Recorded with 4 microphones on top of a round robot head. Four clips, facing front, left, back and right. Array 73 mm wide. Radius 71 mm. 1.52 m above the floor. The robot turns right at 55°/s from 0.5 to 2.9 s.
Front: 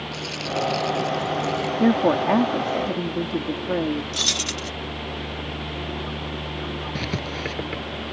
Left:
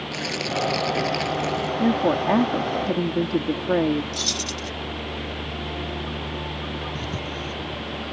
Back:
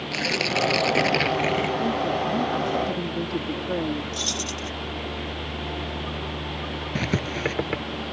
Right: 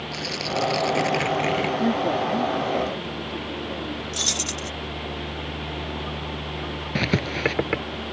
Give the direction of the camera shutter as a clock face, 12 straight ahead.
No camera shutter in this recording.